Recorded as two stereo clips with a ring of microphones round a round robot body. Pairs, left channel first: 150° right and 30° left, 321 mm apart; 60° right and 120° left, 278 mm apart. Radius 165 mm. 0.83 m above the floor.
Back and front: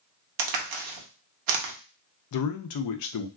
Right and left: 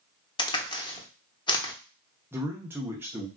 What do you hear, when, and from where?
0.4 s a crack: 15° left, 0.7 m
2.3 s a man speaking: 160° right, 0.5 m